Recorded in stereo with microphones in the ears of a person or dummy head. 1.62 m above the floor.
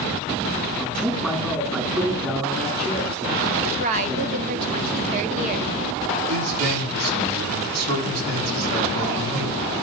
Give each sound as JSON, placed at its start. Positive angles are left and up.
{"t": 0.8, "sound": "a man speaking", "side_deg": -10, "distance_m": 2.0}
{"t": 3.6, "sound": "a woman speaking", "side_deg": -45, "distance_m": 1.1}
{"t": 6.3, "sound": "a man speaking", "side_deg": -90, "distance_m": 5.0}